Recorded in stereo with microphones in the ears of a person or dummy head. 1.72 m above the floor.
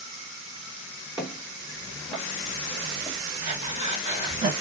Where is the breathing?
40° right (ahead or behind), 1.8 m.